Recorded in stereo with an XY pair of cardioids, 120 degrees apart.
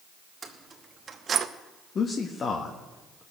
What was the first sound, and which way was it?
Keys jangling, 25° right.